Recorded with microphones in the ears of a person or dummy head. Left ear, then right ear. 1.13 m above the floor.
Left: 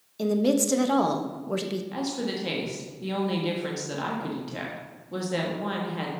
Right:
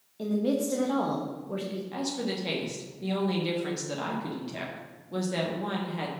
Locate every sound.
0.2 s a woman speaking: 75° left (ahead or behind), 1.3 m
1.9 s a woman speaking: 5° left (ahead or behind), 1.4 m